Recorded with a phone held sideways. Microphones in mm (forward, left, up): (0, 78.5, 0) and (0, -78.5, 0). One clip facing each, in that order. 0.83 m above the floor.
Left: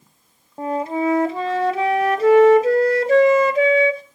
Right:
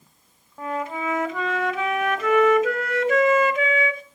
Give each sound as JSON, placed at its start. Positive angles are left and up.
{"t": 0.6, "sound": "a flute", "side_deg": 35, "distance_m": 1.0}